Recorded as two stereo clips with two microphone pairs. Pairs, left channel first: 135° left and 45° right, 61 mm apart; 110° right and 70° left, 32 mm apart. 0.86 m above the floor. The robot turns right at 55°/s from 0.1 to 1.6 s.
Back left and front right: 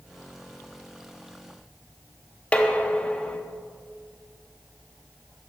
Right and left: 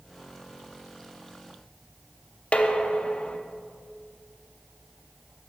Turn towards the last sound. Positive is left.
turn(degrees=-155)